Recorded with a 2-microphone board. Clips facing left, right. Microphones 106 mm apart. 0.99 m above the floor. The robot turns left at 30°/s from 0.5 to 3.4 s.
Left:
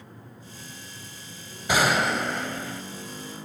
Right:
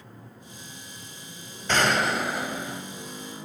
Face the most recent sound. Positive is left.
turn(degrees=-40)